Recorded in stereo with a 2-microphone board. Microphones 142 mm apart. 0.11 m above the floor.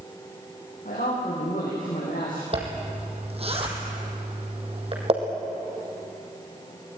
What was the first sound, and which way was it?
A man speaking, 70° left (ahead or behind).